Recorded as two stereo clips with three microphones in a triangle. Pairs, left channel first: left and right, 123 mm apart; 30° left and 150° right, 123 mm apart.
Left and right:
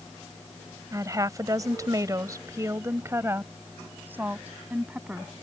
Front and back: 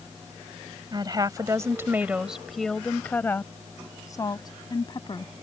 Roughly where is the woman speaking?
Behind right.